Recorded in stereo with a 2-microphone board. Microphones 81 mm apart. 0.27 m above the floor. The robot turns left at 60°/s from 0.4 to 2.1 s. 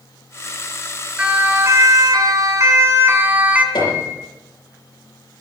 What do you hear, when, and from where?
1.2 s a siren: 15° right (ahead or behind), 3.5 m; by 3.6 s 20° right (ahead or behind), 2.5 m
3.8 s a piano: 65° left (ahead or behind), 7 m